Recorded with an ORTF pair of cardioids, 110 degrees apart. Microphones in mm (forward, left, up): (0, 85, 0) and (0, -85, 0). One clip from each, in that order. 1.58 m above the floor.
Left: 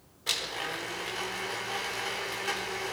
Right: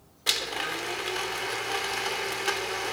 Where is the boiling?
I don't hear boiling.